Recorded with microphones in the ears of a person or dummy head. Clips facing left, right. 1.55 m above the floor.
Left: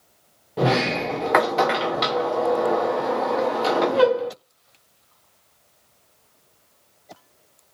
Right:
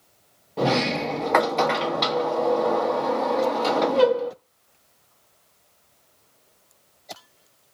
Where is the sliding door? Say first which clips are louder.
Left 1 dB; centre (ahead or behind), 0.6 m.